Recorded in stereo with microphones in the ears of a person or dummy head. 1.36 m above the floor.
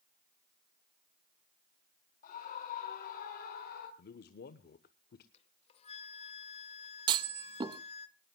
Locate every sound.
2.2 s a scream: 45° left (ahead or behind), 2 m; by 3.9 s 55° left (ahead or behind), 3 m
4.0 s a man speaking: 50° left (ahead or behind), 1.0 m
5.3 s a flute: 35° left (ahead or behind), 1.3 m
7.1 s a clunk: 30° right (ahead or behind), 0.8 m